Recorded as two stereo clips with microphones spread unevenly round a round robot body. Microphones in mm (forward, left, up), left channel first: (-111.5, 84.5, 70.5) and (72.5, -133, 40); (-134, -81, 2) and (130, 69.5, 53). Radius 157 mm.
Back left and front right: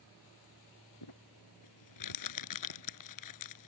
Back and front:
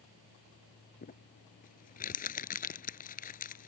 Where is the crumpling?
145° left.